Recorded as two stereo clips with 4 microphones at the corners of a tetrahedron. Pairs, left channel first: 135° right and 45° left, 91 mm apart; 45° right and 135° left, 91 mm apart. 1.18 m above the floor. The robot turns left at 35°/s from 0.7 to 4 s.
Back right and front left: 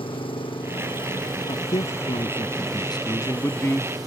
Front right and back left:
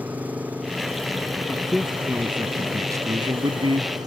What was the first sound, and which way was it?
An engine running, 150° right.